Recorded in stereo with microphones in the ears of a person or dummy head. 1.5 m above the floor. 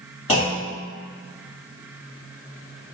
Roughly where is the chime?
No chime in this recording.